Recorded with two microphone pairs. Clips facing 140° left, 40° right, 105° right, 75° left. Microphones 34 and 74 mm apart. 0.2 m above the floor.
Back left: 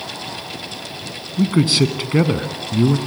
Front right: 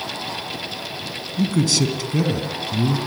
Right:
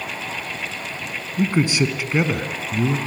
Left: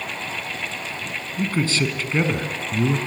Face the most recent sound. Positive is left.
turn(degrees=155)